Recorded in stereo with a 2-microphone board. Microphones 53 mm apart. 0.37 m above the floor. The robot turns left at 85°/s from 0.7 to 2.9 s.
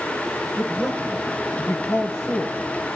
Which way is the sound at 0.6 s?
20° right (ahead or behind).